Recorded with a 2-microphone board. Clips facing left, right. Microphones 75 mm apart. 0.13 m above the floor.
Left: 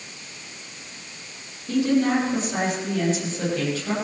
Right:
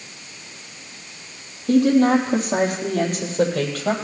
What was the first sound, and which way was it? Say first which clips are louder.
A woman speaking: right 5 dB; 55° right (ahead or behind).